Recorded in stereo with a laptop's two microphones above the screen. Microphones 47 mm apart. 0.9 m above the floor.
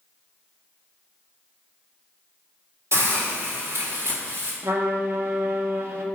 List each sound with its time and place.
2.9 s a hiss: 75° right (ahead or behind), 2.0 m
4.6 s a trumpet: 60° right (ahead or behind), 0.8 m